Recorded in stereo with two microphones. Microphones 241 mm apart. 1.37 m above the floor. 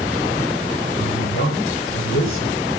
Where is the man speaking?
60° left (ahead or behind), 6.5 m.